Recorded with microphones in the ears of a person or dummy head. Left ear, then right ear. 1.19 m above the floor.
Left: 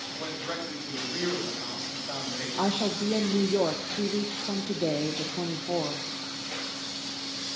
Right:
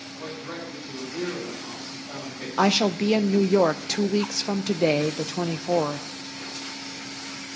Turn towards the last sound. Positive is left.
turn(degrees=-70)  # may be behind; listen again after turning